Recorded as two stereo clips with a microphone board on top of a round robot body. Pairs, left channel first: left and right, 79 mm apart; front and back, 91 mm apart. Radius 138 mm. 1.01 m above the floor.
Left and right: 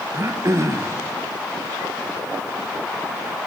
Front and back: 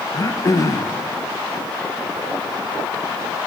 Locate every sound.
0.1 s throat clearing: 45° right, 1.1 m